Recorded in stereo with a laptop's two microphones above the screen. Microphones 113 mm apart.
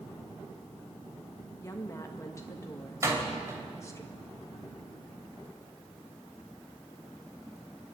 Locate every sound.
1.6 s a woman speaking: 25° left (ahead or behind), 1.7 m
3.0 s a door slam: 25° right (ahead or behind), 3.5 m